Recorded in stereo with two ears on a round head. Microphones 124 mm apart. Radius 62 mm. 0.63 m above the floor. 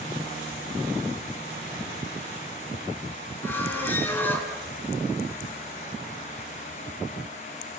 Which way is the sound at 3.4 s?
15° left (ahead or behind).